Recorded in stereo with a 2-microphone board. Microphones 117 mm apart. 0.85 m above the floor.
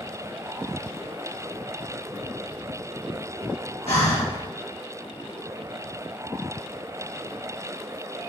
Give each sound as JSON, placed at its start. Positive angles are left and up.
{"t": 3.9, "sound": "breathing", "side_deg": 80, "distance_m": 3.0}